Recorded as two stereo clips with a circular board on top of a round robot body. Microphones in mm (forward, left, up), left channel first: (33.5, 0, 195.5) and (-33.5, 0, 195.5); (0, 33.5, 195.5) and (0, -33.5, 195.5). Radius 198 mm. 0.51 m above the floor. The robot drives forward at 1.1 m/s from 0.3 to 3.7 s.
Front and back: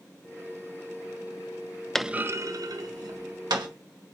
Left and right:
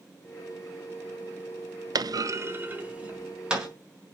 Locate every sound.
1.9 s a clunk: 85° right, 0.5 m; by 3.7 s 165° right, 1.9 m